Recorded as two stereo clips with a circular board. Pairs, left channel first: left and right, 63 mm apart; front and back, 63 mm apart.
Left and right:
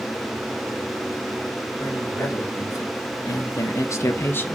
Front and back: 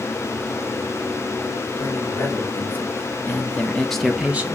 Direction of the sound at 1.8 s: 50° left.